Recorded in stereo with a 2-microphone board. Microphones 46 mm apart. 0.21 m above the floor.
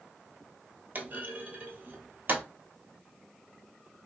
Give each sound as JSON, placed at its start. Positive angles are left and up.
{"t": 0.9, "sound": "a clunk", "side_deg": -35, "distance_m": 0.9}